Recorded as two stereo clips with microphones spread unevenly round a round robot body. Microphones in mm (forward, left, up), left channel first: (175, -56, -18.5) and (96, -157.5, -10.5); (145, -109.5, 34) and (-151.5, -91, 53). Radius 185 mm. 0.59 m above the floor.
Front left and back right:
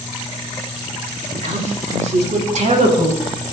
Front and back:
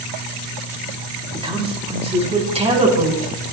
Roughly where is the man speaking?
Right.